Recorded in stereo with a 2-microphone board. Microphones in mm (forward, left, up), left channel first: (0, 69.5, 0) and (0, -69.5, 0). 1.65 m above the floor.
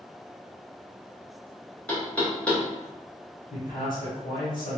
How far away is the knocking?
About 0.8 m.